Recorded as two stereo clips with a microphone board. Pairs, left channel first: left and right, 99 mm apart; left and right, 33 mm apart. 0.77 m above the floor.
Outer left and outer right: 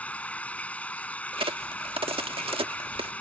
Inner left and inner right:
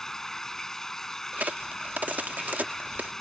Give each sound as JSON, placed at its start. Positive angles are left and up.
{"t": 0.0, "sound": "running water", "side_deg": 15}
{"t": 1.3, "sound": "a crack", "side_deg": -65}